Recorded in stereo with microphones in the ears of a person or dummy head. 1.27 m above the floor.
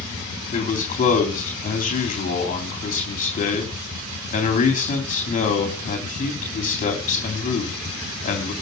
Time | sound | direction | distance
0.5 | a man speaking | 40° left (ahead or behind) | 3.5 m